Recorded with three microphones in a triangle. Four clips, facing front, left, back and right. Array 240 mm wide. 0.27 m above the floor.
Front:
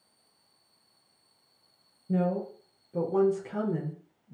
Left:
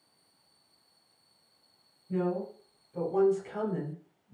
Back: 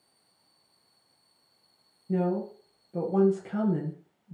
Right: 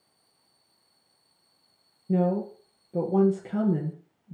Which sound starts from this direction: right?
A woman speaking, at 2.1 s.